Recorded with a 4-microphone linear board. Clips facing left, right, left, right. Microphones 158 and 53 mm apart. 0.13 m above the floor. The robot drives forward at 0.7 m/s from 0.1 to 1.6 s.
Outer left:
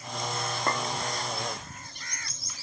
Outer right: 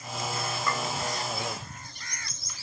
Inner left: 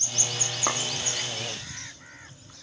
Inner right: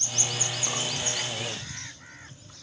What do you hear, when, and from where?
0.7 s a clink: 50° left (ahead or behind), 3.5 m; by 0.8 s 55° left (ahead or behind), 3.5 m